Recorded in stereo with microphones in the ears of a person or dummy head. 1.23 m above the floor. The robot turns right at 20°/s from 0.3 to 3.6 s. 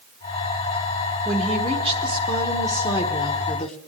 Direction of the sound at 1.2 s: 5° right.